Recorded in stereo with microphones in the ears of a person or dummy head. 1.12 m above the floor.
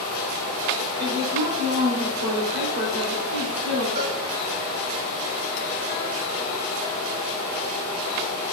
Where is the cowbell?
45° right (ahead or behind), 4.5 m.